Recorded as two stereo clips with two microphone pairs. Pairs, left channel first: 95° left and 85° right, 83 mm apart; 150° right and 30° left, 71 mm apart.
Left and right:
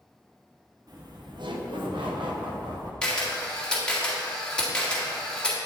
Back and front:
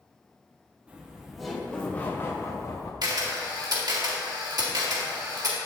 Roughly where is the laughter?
Ahead right.